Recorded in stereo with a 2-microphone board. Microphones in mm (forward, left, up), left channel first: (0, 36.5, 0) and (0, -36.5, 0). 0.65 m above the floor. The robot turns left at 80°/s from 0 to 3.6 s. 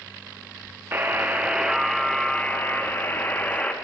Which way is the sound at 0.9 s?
100° right.